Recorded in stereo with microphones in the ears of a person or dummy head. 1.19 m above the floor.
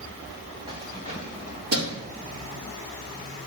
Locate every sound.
0.7 s keys jangling: 25° right (ahead or behind), 2.5 m; by 2.1 s 75° right (ahead or behind), 1.9 m